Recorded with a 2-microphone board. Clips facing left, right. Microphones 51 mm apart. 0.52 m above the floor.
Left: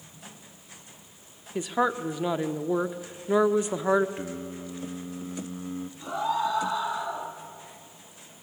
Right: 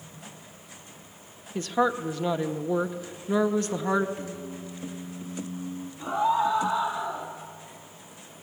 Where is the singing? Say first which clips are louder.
Left 1 dB; 45° left (ahead or behind), 0.7 m.